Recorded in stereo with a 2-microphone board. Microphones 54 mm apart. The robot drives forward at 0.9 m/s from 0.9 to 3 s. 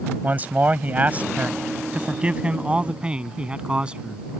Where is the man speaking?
30° right (ahead or behind); by 4.2 s 20° right (ahead or behind).